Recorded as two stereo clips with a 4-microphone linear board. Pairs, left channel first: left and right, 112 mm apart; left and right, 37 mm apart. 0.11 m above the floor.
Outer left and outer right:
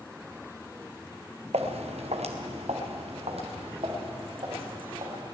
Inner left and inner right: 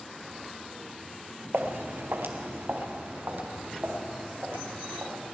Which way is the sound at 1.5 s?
80° right.